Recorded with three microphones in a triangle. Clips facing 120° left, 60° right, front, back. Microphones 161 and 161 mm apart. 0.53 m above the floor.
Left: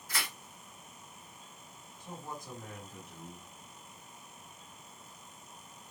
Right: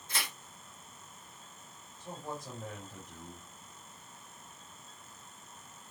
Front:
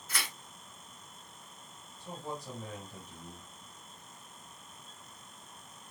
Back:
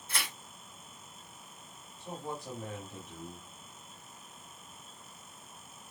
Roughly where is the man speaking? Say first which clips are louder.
Right 3 dB, back 1 dB; behind right.